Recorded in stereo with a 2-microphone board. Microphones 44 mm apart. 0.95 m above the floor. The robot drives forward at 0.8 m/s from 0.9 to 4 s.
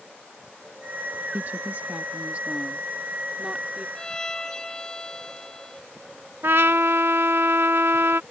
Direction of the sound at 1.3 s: 45° right (ahead or behind).